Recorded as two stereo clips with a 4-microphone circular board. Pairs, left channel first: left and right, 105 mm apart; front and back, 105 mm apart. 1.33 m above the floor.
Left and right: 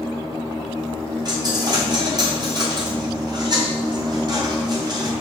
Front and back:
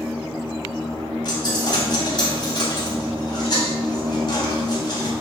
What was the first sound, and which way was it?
A dropped coin, 45° right.